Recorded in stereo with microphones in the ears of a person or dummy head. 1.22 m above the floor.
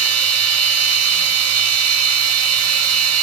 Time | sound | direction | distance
0.0 | a machine running | 80° right | 2 m